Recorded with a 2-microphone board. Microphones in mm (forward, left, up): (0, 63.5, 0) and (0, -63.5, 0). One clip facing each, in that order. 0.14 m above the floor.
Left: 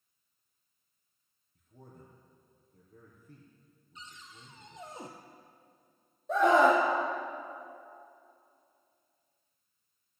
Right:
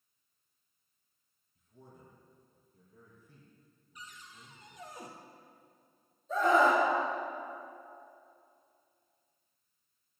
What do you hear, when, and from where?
1.6 s a man speaking: 55° left (ahead or behind), 3.5 m
4.0 s a cupboard door: 25° left (ahead or behind), 1.7 m
6.3 s a scream: 70° left (ahead or behind), 4.5 m